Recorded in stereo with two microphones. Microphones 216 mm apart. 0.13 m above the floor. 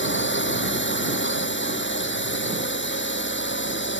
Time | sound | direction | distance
0.0 | a drone | 60° left (ahead or behind) | ?